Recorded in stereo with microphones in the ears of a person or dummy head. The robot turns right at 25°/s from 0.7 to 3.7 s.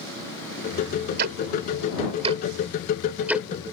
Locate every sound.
1.2 s ticking: 65° right (ahead or behind); by 3.5 s 5° right (ahead or behind)